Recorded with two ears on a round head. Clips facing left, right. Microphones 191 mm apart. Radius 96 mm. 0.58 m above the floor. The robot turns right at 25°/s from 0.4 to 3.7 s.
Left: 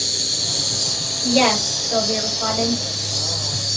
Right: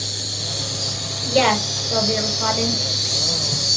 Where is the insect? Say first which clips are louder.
Left 1 dB; 145° left, 6 m; by 3.8 s 130° right, 6 m.